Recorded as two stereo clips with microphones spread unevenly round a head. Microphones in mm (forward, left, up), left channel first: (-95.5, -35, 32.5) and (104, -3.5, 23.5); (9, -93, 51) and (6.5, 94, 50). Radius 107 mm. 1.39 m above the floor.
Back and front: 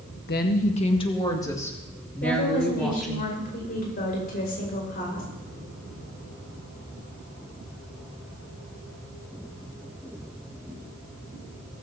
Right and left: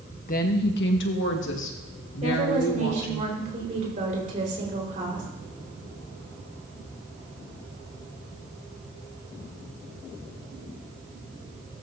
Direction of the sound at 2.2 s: 140° left.